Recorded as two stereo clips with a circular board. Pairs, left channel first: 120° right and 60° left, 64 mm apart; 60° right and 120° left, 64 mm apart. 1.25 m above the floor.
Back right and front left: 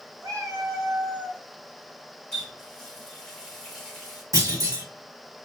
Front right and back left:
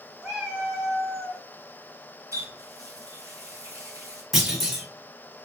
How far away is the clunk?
About 1.9 m.